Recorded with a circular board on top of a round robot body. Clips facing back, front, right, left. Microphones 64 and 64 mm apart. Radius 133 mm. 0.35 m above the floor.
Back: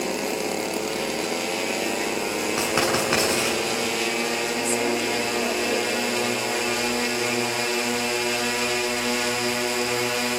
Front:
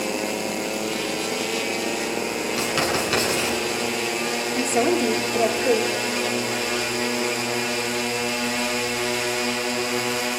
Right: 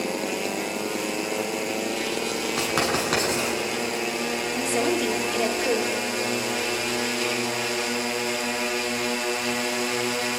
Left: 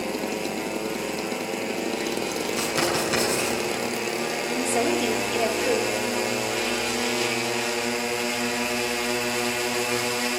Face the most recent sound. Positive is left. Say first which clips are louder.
# front 7 dB, left 1 dB
turn(degrees=-15)